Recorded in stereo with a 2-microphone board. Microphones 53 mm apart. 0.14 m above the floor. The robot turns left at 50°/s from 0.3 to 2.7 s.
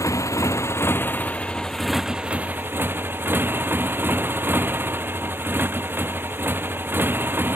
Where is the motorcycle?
80° left; by 7.6 s 40° right.